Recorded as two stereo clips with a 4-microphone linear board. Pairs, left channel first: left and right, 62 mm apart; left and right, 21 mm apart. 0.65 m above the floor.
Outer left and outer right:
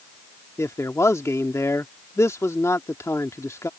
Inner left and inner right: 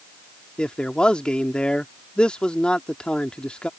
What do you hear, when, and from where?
0.6 s a man speaking: 55° left (ahead or behind)